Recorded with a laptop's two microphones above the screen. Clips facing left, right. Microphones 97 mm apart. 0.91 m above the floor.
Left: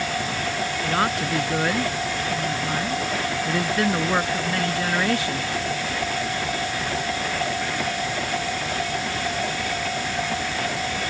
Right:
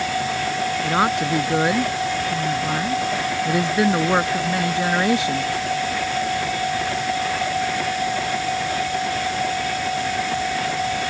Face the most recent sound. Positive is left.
turn(degrees=-20)  # may be behind; listen again after turning